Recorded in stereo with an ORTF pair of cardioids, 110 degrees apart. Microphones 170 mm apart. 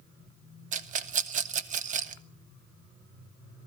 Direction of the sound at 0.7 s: 50° right.